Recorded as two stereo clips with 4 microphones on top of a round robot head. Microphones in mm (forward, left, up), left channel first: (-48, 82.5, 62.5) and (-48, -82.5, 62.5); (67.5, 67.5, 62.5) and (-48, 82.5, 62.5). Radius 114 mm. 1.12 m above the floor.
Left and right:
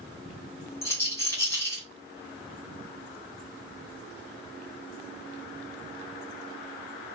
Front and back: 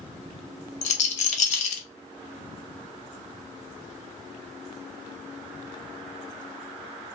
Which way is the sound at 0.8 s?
10° left.